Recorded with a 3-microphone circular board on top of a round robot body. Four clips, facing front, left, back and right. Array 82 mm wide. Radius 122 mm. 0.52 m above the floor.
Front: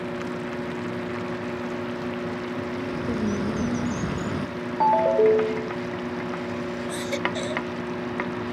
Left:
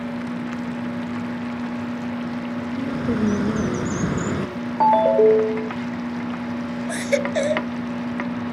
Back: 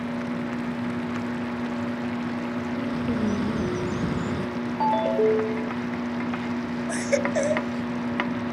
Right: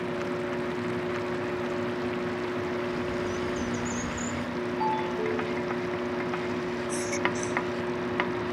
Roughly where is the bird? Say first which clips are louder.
Left 6 dB, back 2 dB; left.